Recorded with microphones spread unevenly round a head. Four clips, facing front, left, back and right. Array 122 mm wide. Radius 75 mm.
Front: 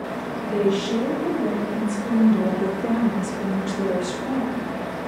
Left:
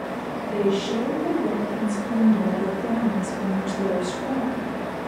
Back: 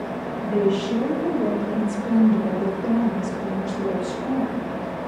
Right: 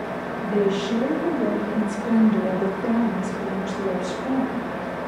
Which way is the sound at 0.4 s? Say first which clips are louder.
Right 1 dB, back 1 dB; 125° right.